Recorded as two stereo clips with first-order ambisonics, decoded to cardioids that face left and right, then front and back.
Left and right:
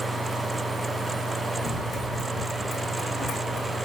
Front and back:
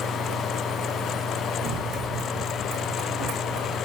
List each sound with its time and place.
1.6 s running footsteps: 160° left, 3 m; by 3.8 s 165° left, 4.5 m